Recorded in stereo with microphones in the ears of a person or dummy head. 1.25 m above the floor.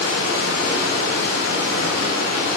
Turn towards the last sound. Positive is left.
turn(degrees=80)